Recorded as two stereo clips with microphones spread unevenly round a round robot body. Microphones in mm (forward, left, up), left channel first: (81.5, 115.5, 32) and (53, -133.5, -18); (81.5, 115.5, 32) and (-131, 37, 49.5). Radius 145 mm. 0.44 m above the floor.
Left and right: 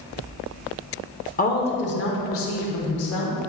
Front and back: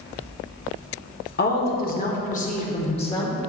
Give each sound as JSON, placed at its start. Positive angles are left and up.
{"t": 1.4, "sound": "a woman speaking", "azimuth_deg": 25, "distance_m": 1.2}